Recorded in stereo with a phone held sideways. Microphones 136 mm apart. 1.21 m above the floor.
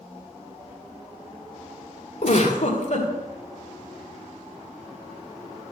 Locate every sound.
2.2 s a giggle: 55° left (ahead or behind), 2.5 m